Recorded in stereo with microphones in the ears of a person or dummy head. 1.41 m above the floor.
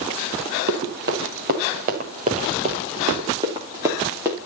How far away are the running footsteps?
About 4.5 m.